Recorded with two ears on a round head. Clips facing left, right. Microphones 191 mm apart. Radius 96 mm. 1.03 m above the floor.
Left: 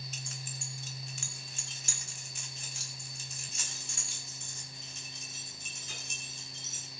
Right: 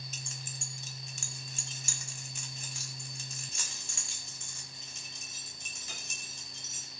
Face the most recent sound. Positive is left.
turn(degrees=-55)  # may be behind; listen again after turning